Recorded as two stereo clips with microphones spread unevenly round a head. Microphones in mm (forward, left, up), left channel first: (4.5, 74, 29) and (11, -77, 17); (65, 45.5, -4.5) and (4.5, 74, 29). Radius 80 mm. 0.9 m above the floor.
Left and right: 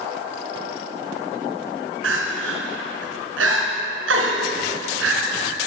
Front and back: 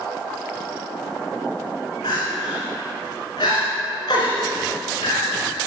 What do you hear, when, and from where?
2.0 s crying: 95° right, 3 m